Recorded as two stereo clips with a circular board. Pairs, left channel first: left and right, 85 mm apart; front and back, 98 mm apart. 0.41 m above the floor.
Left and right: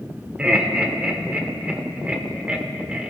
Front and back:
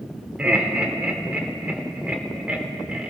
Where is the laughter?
130° right, 1.0 m.